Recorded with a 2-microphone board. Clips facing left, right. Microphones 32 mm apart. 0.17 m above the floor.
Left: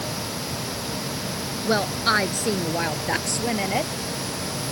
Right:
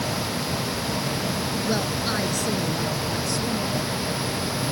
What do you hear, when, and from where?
1.6 s a woman speaking: 35° left (ahead or behind); by 3.9 s 70° left (ahead or behind)